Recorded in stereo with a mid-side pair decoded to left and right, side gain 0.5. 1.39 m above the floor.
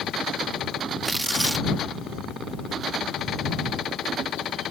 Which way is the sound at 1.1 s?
15° right.